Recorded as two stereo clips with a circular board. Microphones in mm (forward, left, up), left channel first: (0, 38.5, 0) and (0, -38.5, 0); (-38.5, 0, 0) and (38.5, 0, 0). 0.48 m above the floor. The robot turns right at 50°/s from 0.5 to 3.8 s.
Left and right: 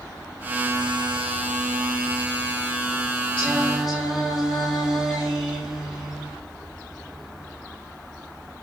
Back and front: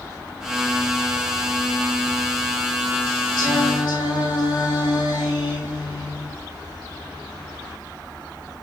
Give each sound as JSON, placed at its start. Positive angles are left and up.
{"t": 3.4, "sound": "singing", "azimuth_deg": 165, "distance_m": 5.5}